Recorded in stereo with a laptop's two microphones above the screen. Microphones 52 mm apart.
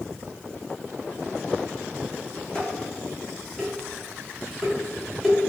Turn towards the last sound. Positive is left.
turn(degrees=10)  # may be behind; listen again after turning